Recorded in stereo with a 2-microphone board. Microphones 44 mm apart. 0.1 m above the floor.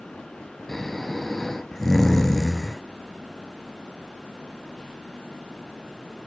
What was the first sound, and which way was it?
Snoring, 5° left (ahead or behind).